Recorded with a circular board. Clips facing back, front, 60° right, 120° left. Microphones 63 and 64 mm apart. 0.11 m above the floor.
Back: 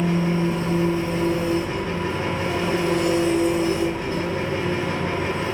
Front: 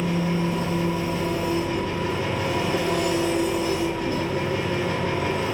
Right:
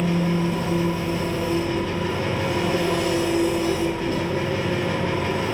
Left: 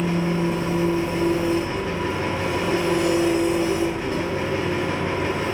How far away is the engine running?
About 0.9 m.